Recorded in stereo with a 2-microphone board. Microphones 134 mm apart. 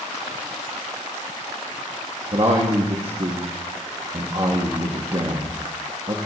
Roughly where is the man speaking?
Right.